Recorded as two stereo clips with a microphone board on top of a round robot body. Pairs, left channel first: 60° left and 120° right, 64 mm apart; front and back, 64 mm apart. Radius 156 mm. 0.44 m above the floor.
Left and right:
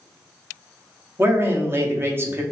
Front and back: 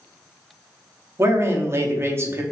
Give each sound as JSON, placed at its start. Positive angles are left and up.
{"t": 1.2, "sound": "a man speaking", "azimuth_deg": -155, "distance_m": 1.1}